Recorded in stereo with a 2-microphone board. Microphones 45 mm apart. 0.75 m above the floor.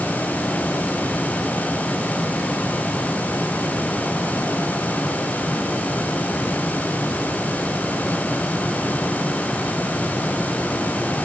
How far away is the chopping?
No chopping in this recording.